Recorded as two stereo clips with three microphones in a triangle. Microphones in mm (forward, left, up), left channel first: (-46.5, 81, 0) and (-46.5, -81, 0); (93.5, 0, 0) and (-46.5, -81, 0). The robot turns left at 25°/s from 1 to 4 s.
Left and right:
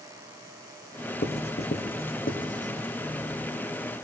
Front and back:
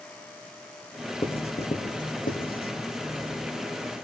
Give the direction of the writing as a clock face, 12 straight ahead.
9 o'clock.